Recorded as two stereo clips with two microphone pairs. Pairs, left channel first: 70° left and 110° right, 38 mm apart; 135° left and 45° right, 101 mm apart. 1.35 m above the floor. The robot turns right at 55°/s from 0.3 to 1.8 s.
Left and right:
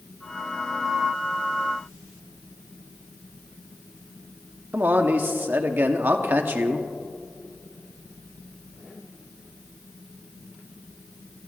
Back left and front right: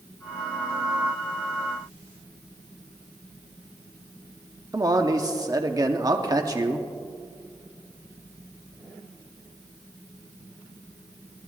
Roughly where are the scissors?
No scissors in this recording.